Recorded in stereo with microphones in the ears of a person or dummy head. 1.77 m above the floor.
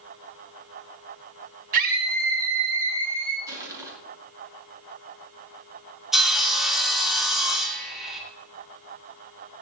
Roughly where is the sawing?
Centre.